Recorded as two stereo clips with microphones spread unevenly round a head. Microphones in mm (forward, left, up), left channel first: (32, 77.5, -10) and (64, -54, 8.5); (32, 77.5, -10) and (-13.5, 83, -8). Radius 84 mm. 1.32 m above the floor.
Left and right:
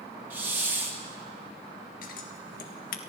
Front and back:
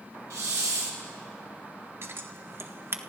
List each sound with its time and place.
0.3 s a hiss: 155° right, 1.6 m
2.0 s scissors: 145° left, 1.4 m